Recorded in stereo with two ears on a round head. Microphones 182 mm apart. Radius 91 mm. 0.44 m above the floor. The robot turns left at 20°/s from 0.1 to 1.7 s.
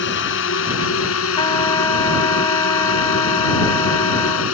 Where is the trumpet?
25° left (ahead or behind); by 4.5 s 20° left (ahead or behind).